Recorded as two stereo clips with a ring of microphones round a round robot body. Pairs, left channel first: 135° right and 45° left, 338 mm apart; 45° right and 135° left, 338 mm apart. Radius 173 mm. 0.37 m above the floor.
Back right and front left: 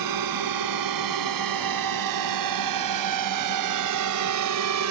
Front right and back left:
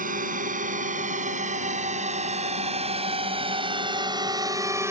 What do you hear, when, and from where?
0.0 s a drone: 70° left; by 4.9 s 55° left